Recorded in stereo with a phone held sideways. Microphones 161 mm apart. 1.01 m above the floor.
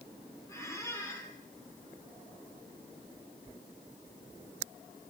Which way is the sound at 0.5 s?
15° left (ahead or behind).